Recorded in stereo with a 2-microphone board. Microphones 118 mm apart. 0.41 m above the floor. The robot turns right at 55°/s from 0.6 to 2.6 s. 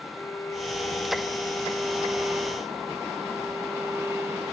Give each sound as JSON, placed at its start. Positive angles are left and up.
{"t": 0.1, "sound": "a violin", "side_deg": 25, "distance_m": 0.7}